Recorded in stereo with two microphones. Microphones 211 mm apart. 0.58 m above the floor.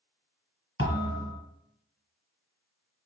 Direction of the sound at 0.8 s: 80° left.